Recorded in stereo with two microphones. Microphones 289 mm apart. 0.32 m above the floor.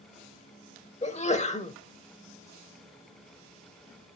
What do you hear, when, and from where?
1.0 s a sneeze: 25° left (ahead or behind), 0.9 m